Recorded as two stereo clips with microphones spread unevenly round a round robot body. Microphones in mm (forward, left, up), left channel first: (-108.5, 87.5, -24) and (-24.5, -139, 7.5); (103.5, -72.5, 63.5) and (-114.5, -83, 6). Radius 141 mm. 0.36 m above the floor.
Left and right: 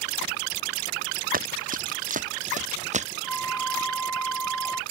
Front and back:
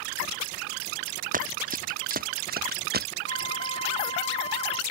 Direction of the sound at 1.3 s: 125° right.